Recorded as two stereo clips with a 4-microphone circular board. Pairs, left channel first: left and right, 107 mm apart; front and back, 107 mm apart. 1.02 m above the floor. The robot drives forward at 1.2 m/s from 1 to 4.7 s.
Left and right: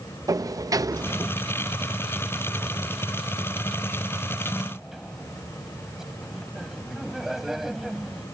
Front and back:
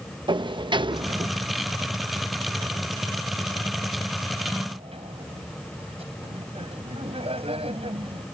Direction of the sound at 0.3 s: 145° right.